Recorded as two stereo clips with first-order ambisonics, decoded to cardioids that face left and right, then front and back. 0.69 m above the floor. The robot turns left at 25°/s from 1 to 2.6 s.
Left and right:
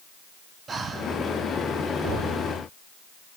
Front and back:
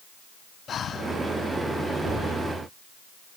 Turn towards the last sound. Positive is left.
turn(degrees=-125)